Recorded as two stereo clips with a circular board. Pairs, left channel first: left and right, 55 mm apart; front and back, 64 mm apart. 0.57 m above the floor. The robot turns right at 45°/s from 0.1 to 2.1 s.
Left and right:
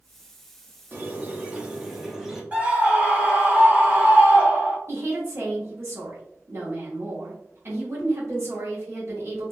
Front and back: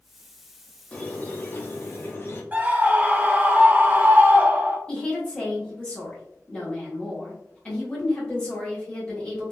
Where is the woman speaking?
65° right, 1.2 m.